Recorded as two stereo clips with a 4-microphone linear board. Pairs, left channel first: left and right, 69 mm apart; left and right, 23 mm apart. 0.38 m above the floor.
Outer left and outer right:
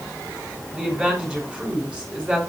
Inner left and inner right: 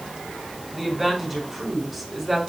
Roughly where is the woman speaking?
Centre.